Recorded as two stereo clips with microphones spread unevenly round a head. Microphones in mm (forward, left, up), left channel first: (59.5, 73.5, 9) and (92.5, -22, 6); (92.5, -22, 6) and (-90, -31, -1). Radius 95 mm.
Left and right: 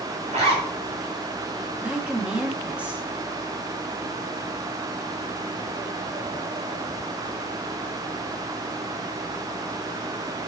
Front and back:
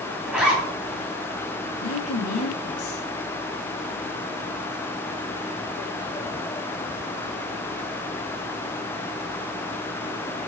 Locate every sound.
0.3 s a zipper: 90° right, 3 m
1.8 s a woman speaking: 5° left, 1.9 m